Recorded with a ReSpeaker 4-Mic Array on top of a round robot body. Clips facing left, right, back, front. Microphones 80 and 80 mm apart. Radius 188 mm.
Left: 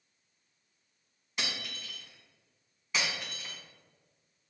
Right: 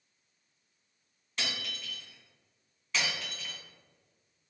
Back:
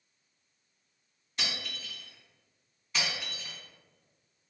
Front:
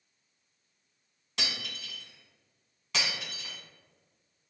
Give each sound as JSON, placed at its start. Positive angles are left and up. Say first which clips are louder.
{"t": 1.4, "sound": "breaking glass", "louder": "even, even", "azimuth_deg": 15, "distance_m": 1.6}